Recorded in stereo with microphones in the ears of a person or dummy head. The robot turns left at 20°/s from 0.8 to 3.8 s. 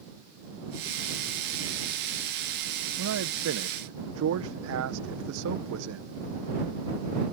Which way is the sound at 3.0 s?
75° right (ahead or behind).